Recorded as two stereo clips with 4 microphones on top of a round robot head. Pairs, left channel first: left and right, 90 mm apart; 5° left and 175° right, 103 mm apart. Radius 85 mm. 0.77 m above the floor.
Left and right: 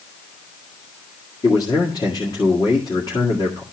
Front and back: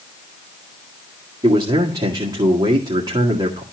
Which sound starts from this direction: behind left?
A man speaking, at 1.4 s.